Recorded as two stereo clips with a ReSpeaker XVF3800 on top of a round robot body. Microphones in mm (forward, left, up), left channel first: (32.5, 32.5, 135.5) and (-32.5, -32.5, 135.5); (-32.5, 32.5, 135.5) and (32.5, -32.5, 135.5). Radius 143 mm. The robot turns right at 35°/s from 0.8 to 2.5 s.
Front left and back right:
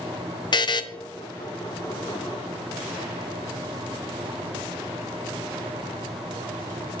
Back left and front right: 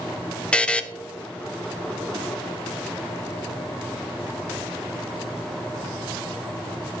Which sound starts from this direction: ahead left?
A buzzer, at 0.5 s.